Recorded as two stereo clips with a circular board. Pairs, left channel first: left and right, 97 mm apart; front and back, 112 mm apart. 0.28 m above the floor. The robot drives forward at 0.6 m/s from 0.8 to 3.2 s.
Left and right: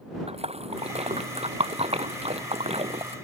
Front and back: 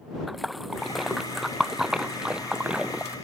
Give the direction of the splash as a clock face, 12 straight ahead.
3 o'clock.